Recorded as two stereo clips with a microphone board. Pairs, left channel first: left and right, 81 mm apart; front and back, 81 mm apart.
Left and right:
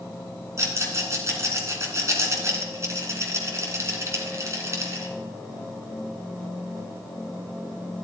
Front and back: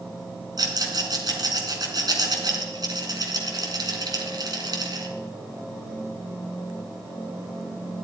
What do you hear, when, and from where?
0.6 s a rattle: 145° right, 2.5 m